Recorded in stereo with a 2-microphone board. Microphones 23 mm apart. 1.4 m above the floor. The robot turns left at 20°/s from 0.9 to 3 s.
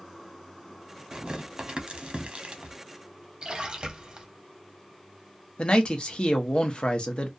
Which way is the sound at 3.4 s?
45° right (ahead or behind).